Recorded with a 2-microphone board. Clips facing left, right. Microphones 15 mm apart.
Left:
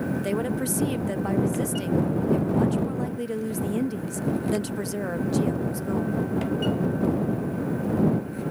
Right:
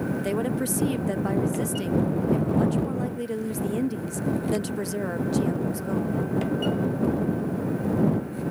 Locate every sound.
0.2 s a woman speaking: centre (ahead or behind)